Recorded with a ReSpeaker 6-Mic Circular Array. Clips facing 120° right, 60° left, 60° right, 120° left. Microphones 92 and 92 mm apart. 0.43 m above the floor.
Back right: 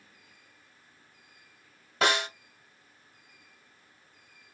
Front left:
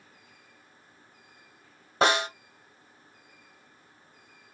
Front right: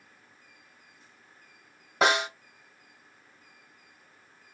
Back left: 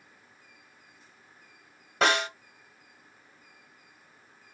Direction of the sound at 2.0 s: 20° left.